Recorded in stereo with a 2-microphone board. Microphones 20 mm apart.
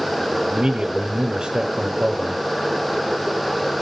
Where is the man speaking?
50° right (ahead or behind), 1.2 m.